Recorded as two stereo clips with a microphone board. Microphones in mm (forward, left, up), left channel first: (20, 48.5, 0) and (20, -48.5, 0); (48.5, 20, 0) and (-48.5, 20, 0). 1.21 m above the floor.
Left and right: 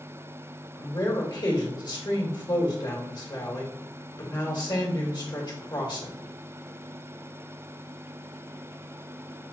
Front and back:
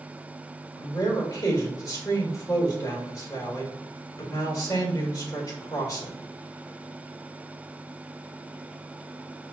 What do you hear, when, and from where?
0.8 s a man speaking: 50° left, 1.5 m